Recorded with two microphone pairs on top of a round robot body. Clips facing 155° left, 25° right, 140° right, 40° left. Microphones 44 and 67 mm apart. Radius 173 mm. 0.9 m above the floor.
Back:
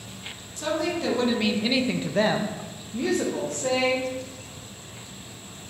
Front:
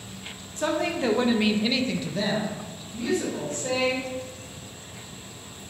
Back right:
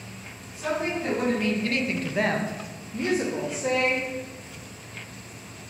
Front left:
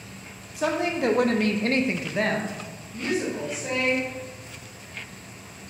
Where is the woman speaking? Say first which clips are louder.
Front 1 dB, front left 3 dB; 30° left, 0.8 m; by 4.0 s 175° left, 1.2 m.